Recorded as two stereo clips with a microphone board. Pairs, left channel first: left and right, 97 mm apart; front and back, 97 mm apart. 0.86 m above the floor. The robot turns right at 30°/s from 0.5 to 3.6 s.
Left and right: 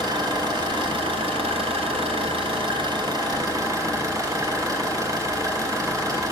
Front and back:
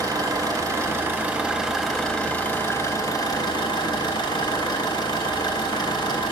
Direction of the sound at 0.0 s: 130° right.